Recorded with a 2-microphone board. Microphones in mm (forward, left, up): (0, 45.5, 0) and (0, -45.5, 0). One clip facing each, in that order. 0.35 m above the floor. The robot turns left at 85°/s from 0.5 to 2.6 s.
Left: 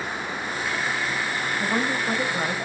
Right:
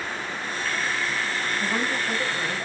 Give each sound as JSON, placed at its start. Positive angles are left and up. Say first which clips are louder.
{"t": 1.6, "sound": "a woman speaking", "louder": "left 3 dB", "azimuth_deg": 155, "distance_m": 1.7}